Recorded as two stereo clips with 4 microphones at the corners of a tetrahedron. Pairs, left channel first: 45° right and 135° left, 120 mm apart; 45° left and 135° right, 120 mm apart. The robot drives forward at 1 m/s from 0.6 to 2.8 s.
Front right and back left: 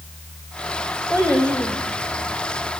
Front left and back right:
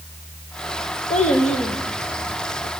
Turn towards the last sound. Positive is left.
turn(degrees=70)